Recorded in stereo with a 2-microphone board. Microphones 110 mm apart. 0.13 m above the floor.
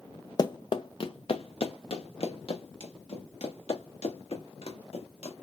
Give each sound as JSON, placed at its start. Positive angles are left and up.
{"t": 0.4, "sound": "running footsteps", "side_deg": 35, "distance_m": 0.5}